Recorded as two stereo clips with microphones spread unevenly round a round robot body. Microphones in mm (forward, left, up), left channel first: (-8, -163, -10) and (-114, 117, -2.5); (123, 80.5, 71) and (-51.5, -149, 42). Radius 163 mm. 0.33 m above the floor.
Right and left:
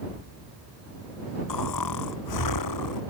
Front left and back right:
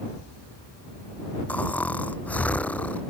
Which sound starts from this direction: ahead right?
Snoring, at 1.5 s.